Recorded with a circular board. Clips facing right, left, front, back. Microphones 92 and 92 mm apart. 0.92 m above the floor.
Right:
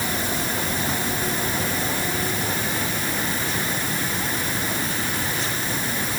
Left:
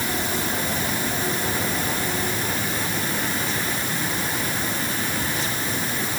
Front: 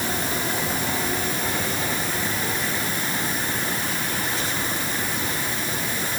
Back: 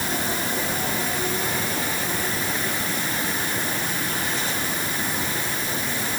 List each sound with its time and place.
Only background noise.